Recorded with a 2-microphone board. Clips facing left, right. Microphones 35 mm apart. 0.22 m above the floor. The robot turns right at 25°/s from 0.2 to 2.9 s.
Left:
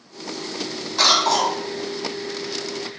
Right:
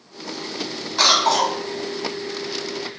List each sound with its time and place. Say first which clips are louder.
1.0 s a cough: right 1 dB; 5° right (ahead or behind), 1.2 m; by 1.6 s 10° right (ahead or behind), 1.2 m